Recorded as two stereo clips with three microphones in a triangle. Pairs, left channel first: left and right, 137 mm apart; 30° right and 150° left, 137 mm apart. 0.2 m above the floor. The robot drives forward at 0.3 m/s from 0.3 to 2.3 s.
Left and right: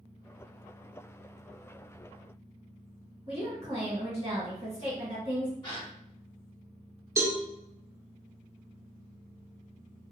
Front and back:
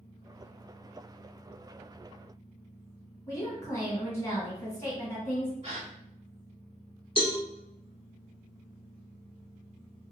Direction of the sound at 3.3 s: 85° right.